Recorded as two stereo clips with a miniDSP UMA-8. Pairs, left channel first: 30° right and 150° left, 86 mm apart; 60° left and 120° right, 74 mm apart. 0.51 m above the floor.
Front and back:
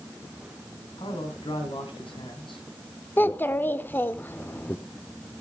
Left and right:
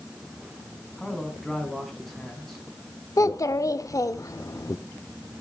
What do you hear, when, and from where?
1.0 s a man speaking: 25° right, 4 m
3.2 s a child speaking: 30° left, 0.7 m